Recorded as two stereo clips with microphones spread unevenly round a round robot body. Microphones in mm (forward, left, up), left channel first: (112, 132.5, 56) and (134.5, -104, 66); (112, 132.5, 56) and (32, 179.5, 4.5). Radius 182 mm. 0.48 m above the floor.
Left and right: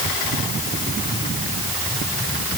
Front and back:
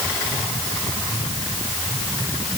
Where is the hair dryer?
No hair dryer in this recording.